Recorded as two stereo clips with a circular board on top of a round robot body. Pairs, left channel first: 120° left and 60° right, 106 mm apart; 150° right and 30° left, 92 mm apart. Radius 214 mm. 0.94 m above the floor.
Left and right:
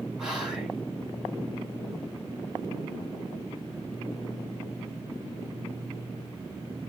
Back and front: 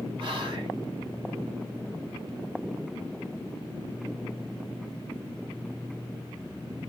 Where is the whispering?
25° left, 1.8 m.